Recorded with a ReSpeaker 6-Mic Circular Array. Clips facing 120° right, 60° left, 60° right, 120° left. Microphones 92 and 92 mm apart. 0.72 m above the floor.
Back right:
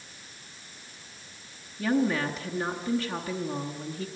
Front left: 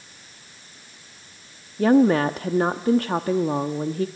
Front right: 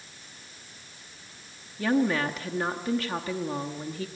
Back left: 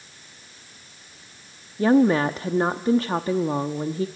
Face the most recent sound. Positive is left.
turn(degrees=70)